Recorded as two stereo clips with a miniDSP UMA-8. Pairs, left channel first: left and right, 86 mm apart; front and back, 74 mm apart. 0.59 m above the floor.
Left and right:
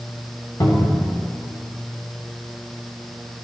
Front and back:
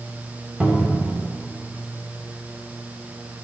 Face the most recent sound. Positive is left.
turn(degrees=110)